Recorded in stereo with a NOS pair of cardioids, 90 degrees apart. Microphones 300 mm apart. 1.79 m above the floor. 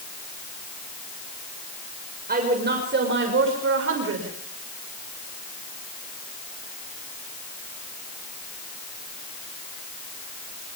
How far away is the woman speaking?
About 6.5 m.